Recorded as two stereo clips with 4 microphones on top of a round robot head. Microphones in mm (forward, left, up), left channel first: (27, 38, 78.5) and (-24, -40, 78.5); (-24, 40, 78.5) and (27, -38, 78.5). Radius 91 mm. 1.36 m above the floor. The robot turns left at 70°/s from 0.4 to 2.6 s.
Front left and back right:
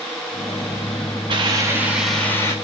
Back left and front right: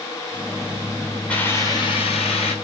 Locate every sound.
1.3 s a hiss: 160° right, 4.5 m; by 2.5 s 115° left, 4.5 m